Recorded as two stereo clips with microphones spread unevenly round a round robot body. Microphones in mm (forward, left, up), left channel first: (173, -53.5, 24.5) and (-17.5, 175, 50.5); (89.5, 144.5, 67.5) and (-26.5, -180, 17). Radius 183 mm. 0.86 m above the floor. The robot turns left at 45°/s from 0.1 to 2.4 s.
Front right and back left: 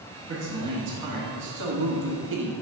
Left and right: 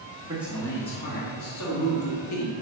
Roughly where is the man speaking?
Behind.